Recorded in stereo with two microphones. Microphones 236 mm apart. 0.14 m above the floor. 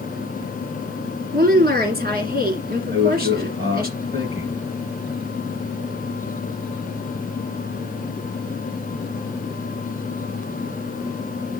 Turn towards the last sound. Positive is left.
turn(degrees=-45)  # may be behind; listen again after turning